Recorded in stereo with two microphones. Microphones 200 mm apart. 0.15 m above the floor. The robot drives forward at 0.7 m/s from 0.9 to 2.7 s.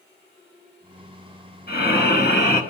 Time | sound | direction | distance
1.7 | breathing | 55° left (ahead or behind) | 1.8 m